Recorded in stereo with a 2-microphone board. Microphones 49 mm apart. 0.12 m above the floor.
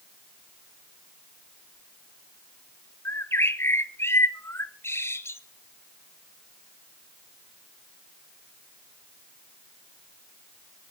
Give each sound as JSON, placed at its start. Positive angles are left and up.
{"t": 3.0, "sound": "a bird", "side_deg": 60, "distance_m": 0.9}